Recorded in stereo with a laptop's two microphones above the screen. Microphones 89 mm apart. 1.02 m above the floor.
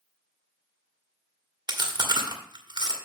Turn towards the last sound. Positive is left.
turn(degrees=-55)  # may be behind; listen again after turning